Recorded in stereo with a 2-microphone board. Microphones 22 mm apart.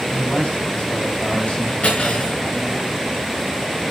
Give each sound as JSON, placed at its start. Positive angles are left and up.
{"t": 0.1, "sound": "a man speaking", "side_deg": 55, "distance_m": 6.5}
{"t": 1.8, "sound": "cutlery clinking", "side_deg": 65, "distance_m": 5.5}